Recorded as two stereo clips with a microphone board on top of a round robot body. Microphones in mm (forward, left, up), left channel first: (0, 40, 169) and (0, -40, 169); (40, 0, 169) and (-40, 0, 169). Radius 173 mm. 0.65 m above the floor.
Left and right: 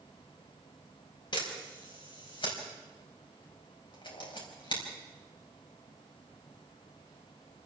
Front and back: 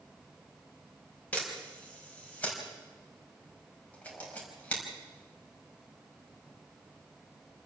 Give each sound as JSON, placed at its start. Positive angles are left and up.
{"t": 1.3, "sound": "a camera shutter", "azimuth_deg": 70, "distance_m": 5.0}